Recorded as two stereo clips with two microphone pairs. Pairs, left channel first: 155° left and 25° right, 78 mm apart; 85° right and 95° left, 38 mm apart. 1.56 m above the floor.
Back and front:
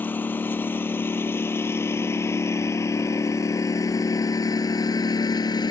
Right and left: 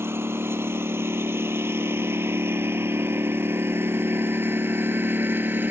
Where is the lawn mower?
90° left; by 5.7 s 125° left.